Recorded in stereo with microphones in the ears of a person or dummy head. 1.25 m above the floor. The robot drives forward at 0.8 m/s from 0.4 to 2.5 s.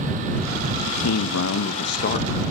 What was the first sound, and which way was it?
A man speaking, 80° left.